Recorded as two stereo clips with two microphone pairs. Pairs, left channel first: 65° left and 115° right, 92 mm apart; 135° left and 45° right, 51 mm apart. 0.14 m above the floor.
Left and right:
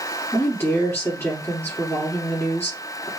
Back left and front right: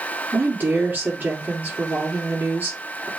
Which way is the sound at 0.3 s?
Straight ahead.